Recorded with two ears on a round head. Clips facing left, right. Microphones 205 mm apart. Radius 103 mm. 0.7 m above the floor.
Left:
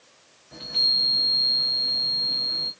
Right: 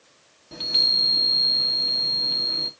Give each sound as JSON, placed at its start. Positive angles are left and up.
{"t": 0.5, "sound": "a chime", "side_deg": -45, "distance_m": 1.0}